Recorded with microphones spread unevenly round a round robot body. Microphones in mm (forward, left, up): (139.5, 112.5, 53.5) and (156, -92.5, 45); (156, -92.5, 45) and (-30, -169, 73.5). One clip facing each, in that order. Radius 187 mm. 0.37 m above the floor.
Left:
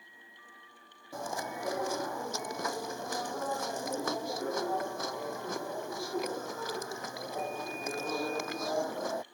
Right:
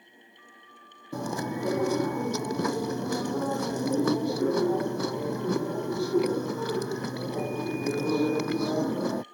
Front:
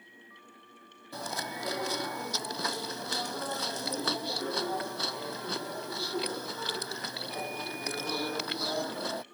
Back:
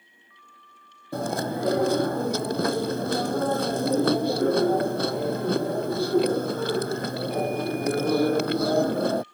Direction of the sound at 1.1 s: 120° right.